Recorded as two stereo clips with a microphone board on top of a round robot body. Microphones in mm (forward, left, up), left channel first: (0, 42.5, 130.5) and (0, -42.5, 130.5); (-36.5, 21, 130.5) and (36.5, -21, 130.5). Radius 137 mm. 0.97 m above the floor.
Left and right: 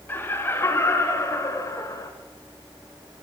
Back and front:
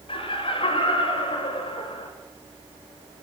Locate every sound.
0.1 s laughter: 155° left, 5.5 m; by 2.1 s 145° left, 5.5 m